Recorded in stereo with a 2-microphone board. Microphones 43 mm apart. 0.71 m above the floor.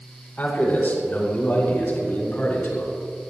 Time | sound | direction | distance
0.4 | a man speaking | 40° left (ahead or behind) | 4 m